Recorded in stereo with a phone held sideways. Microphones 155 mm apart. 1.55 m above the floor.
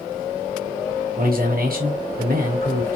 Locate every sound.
1.2 s a man speaking: 70° right (ahead or behind), 1.0 m